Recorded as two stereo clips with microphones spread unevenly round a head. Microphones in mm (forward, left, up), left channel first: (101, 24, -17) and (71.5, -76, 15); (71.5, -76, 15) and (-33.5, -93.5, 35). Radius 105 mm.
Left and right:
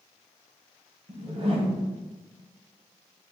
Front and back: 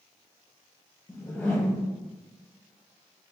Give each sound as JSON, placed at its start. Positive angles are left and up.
{"t": 1.1, "sound": "a whoosh", "azimuth_deg": -70, "distance_m": 1.3}